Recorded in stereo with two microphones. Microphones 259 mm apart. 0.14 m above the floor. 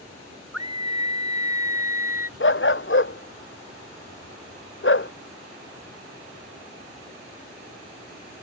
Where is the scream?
75° right (ahead or behind); by 2.3 s 60° right (ahead or behind).